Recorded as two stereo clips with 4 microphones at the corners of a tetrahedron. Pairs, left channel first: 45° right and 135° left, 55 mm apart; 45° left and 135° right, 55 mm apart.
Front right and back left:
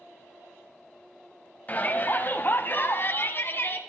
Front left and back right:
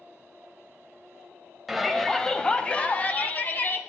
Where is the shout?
55° right, 1.1 m; by 3.8 s 5° right, 1.9 m.